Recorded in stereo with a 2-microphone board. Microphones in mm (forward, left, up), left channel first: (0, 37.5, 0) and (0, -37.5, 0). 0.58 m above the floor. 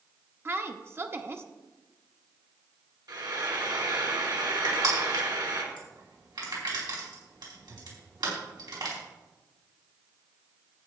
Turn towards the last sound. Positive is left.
turn(degrees=-80)